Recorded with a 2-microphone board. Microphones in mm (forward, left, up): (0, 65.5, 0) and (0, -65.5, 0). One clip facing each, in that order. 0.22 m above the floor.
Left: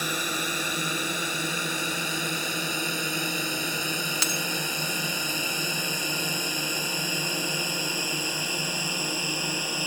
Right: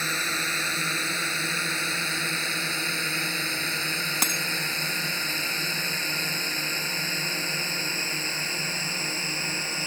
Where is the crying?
I don't hear crying.